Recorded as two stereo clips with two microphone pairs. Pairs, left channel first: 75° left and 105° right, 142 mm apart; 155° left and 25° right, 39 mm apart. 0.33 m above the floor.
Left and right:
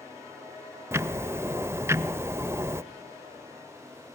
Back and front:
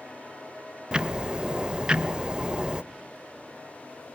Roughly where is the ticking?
Ahead right.